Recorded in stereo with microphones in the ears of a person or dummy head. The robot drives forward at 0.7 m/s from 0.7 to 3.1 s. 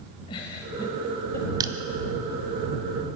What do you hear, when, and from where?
0.3 s a giggle: 25° left (ahead or behind), 1.1 m; by 1.8 s 15° left (ahead or behind), 1.4 m
1.6 s crushing: 25° right (ahead or behind), 1.0 m